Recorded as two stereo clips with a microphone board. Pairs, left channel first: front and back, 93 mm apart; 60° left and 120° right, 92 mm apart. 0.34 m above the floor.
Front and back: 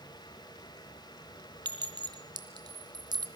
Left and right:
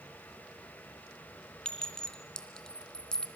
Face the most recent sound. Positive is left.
turn(degrees=145)